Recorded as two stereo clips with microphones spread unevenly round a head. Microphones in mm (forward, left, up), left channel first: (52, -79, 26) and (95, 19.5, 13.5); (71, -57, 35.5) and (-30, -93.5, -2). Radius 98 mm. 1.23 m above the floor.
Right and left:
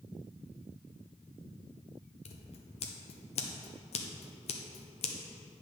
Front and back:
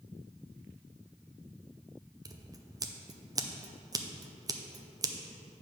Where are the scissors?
130° right, 0.7 m.